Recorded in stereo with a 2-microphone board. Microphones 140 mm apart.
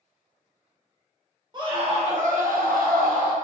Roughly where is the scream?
Right.